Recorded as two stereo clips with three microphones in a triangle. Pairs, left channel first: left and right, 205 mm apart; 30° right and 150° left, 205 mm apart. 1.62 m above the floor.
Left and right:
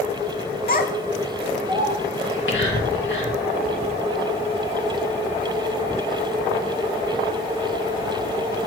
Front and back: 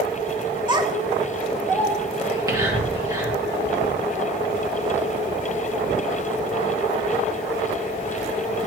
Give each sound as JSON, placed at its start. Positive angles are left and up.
{"t": 0.7, "sound": "a child speaking", "azimuth_deg": 90, "distance_m": 0.7}
{"t": 2.2, "sound": "whispering", "azimuth_deg": 80, "distance_m": 2.0}